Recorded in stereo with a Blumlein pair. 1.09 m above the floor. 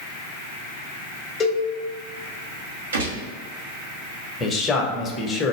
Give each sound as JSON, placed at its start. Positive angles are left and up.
{"t": 1.4, "sound": "a cowbell", "azimuth_deg": 20, "distance_m": 1.0}
{"t": 2.9, "sound": "a gunshot", "azimuth_deg": -70, "distance_m": 1.4}
{"t": 4.4, "sound": "a man speaking", "azimuth_deg": 15, "distance_m": 1.0}